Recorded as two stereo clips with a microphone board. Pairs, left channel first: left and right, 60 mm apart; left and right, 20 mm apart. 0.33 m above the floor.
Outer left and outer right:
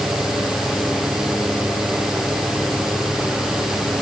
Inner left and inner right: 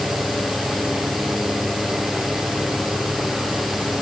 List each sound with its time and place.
Only background noise.